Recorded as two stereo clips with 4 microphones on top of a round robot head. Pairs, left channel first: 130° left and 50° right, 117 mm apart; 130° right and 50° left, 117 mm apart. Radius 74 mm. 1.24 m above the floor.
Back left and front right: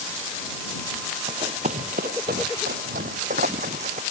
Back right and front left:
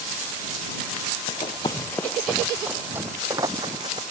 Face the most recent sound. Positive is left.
turn(degrees=-10)